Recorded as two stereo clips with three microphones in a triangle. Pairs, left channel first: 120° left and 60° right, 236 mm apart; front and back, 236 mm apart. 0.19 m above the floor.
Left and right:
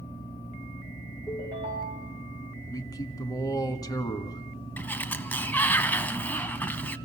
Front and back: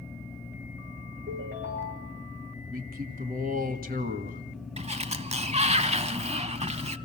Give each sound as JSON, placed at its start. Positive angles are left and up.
{"t": 1.3, "sound": "a ringtone", "azimuth_deg": -130, "distance_m": 7.5}
{"t": 2.7, "sound": "a man speaking", "azimuth_deg": -175, "distance_m": 1.5}
{"t": 4.8, "sound": "a sliding door", "azimuth_deg": -170, "distance_m": 0.6}